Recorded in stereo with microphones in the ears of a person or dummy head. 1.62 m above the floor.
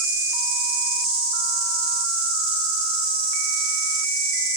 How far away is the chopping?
I don't hear chopping.